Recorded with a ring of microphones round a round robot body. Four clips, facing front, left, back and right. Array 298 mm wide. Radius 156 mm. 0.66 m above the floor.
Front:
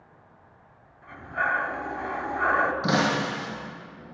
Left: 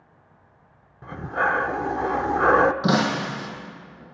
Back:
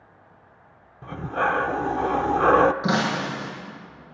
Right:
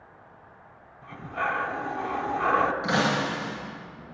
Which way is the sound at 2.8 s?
85° left.